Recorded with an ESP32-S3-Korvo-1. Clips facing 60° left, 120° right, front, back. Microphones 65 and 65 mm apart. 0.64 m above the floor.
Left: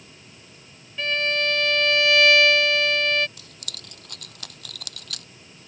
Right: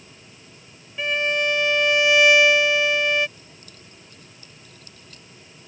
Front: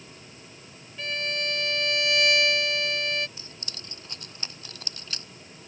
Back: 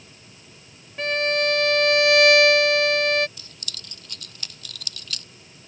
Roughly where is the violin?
Behind.